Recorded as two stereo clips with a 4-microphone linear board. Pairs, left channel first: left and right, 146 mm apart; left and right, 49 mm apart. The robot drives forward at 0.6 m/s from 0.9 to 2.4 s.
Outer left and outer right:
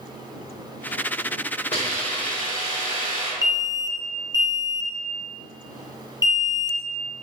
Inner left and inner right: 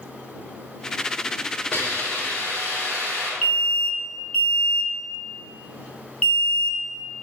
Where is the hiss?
45° left (ahead or behind), 2.5 m; by 3.3 s 40° left (ahead or behind), 2.5 m.